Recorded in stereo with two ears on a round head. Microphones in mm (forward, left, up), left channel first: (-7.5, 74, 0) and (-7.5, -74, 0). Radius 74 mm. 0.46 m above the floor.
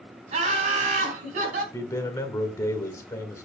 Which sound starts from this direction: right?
Laughter, at 0.3 s.